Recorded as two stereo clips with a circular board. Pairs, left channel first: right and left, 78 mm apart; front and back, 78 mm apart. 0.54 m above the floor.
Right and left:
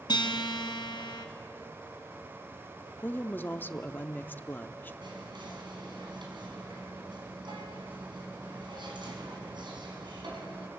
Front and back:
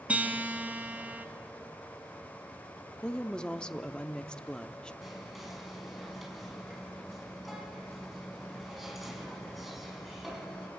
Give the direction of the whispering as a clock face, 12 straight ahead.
9 o'clock.